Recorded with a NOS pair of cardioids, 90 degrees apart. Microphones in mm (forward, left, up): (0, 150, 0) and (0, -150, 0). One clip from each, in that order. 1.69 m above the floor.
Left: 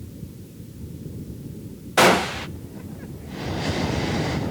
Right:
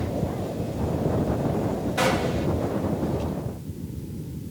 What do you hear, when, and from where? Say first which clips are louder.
2.0 s a gunshot: left 8 dB; 55° left, 0.6 m